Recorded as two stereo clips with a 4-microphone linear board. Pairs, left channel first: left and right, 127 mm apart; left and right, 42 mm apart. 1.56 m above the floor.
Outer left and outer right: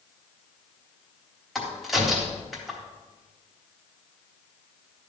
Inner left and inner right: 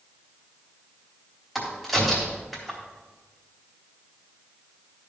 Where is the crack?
Centre (ahead or behind), 3.5 m.